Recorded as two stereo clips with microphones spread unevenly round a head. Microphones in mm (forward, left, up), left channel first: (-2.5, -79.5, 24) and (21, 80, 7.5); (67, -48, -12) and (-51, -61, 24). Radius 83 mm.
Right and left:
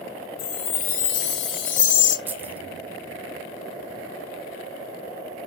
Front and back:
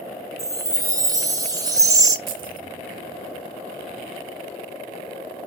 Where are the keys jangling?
160° left, 1.3 m.